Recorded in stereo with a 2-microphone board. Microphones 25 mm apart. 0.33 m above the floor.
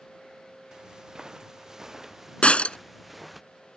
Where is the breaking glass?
55° left (ahead or behind).